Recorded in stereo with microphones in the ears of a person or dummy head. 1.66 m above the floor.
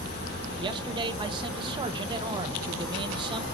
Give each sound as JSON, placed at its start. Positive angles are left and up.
{"t": 0.6, "sound": "a man speaking", "side_deg": -25, "distance_m": 0.9}